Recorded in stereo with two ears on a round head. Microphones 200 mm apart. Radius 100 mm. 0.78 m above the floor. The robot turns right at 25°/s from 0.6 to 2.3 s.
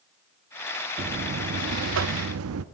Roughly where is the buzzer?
Behind right.